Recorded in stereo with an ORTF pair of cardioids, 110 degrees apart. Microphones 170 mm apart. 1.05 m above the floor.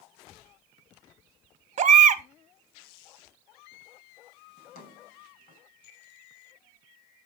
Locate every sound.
1.8 s a baby crying: 45° right, 1.1 m
4.6 s a drawer: 55° left, 4 m